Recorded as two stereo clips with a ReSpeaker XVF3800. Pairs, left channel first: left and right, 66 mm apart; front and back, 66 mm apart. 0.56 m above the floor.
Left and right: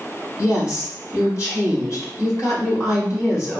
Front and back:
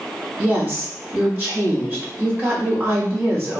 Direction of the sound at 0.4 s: 125° left.